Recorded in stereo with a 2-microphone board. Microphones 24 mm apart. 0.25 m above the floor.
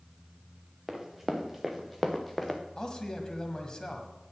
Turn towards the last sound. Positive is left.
turn(degrees=35)  # may be behind; listen again after turning